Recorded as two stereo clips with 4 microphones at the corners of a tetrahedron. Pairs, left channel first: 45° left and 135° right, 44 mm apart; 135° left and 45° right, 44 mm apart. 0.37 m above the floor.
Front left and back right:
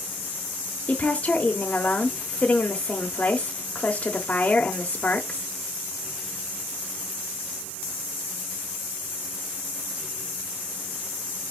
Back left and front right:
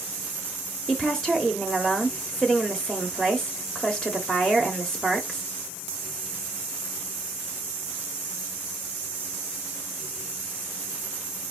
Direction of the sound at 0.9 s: 70° left.